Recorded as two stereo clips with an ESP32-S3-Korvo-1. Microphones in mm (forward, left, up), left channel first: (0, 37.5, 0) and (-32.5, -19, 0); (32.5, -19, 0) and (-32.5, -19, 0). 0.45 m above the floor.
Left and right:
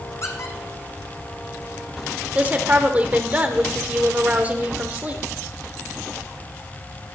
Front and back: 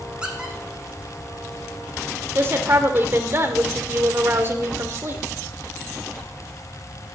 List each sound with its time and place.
0.2 s a squeak: 100° left, 1.9 m
2.4 s a woman speaking: 170° right, 1.5 m